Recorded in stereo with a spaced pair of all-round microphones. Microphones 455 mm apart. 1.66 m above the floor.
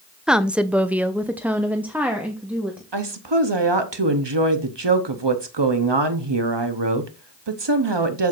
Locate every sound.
0.3 s a woman speaking: centre (ahead or behind), 0.6 m; by 2.8 s 5° right (ahead or behind), 1.3 m
2.9 s a woman speaking: 65° right (ahead or behind), 1.0 m